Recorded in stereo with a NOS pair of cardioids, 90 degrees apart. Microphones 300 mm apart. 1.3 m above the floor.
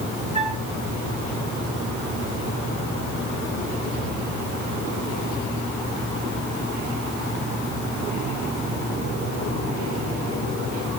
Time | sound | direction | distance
0.3 | a flute | 20° right | 8 m